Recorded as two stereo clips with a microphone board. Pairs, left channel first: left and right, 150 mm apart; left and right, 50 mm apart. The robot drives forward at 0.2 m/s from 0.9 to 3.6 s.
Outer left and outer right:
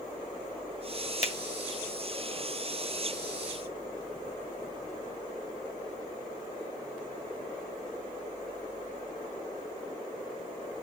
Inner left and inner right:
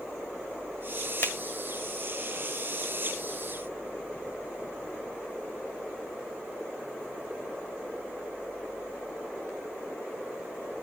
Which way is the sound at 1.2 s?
50° left (ahead or behind).